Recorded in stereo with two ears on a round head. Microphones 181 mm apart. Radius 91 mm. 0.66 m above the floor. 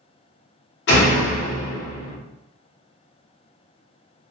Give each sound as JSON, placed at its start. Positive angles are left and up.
{"t": 0.9, "sound": "a door slam", "side_deg": 55, "distance_m": 0.8}